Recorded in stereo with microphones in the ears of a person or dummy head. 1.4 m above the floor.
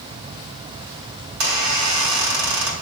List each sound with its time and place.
1.3 s a squeak: 75° right (ahead or behind), 3.5 m